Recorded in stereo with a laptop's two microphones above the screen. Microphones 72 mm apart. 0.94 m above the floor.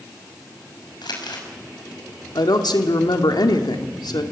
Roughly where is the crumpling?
Left.